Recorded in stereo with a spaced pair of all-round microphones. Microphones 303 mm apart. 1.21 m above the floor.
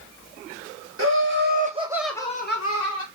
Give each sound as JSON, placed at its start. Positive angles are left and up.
{"t": 1.0, "sound": "laughter", "side_deg": -45, "distance_m": 2.0}